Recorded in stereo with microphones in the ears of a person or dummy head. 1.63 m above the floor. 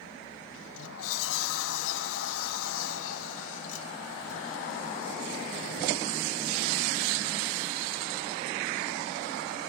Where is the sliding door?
75° left (ahead or behind), 1.2 m.